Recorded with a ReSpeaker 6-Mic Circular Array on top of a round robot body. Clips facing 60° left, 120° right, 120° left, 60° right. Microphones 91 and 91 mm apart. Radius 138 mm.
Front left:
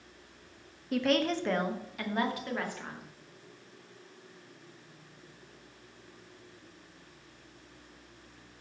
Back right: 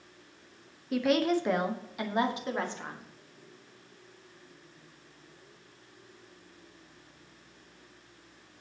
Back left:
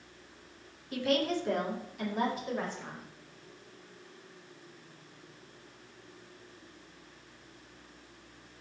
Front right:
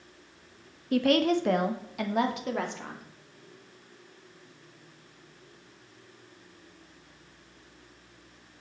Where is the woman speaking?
30° right, 1.4 m; by 3.0 s 55° right, 2.5 m.